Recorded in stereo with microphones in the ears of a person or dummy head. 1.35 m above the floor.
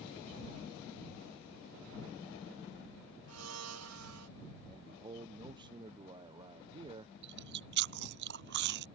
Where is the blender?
80° right.